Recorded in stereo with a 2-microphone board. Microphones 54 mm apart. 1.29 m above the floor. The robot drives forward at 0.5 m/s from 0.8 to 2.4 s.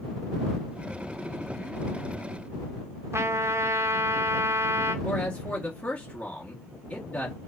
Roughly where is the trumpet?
Right.